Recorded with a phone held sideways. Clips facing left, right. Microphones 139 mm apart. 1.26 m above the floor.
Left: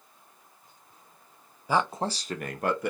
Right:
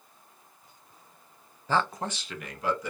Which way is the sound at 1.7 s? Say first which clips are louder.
Left 2 dB; 10° left (ahead or behind).